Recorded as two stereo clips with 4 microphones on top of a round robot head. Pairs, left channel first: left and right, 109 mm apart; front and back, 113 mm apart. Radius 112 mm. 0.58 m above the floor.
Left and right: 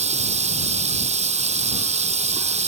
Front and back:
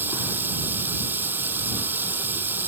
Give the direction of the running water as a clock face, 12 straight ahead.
4 o'clock.